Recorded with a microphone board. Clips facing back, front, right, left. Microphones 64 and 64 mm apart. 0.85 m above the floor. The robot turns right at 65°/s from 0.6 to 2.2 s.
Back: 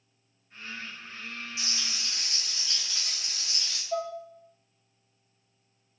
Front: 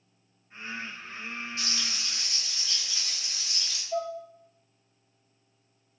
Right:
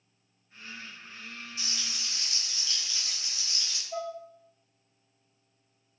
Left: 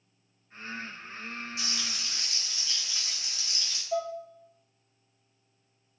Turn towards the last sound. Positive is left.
turn(degrees=130)